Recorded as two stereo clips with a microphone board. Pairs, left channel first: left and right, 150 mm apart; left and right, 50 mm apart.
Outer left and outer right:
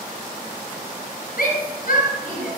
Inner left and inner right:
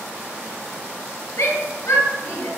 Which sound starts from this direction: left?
A shout, at 1.4 s.